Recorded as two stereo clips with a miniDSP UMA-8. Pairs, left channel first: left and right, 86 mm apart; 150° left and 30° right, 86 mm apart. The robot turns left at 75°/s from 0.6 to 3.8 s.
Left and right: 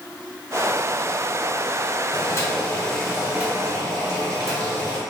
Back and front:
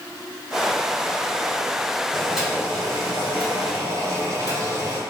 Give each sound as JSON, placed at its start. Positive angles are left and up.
{"t": 2.1, "sound": "boiling", "azimuth_deg": 75, "distance_m": 1.6}